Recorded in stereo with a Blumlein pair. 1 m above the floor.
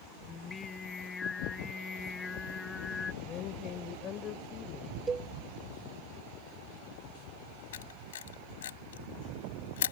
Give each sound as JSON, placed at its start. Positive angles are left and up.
{"t": 0.3, "sound": "singing", "azimuth_deg": 20}
{"t": 3.2, "sound": "a woman speaking", "azimuth_deg": 30}
{"t": 5.1, "sound": "a cowbell", "azimuth_deg": -15}
{"t": 7.7, "sound": "a camera shutter", "azimuth_deg": 60}